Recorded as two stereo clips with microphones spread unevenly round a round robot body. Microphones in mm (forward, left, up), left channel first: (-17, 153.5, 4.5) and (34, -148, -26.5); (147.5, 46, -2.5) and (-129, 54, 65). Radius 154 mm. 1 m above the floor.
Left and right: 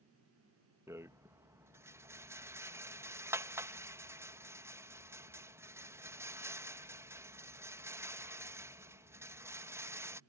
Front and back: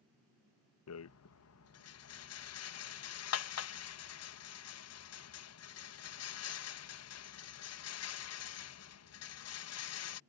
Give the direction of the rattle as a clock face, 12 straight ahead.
12 o'clock.